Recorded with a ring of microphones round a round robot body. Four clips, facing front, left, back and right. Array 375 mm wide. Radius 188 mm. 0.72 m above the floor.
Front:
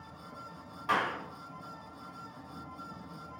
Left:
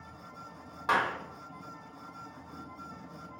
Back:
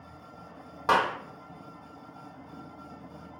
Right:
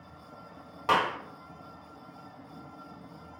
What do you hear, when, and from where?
0.9 s a clap: 160° right, 1.9 m